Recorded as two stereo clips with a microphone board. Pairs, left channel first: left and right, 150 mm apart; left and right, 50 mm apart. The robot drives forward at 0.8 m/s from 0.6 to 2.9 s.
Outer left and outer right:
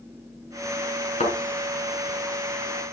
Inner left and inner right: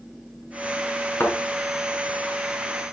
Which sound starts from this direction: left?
A thud, at 1.2 s.